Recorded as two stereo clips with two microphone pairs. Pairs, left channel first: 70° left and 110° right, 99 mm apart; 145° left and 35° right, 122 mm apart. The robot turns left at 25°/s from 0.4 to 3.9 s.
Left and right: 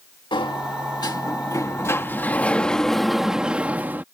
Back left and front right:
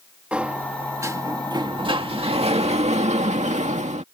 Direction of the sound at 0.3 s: 45° left.